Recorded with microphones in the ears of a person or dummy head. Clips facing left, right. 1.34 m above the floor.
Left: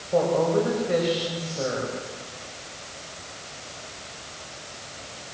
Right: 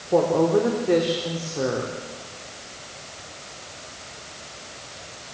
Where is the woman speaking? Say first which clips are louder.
Right 3 dB; 85° right, 3.5 m.